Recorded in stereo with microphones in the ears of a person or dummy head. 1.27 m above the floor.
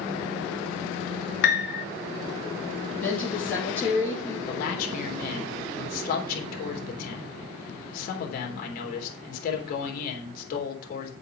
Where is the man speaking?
50° left (ahead or behind), 3.5 m.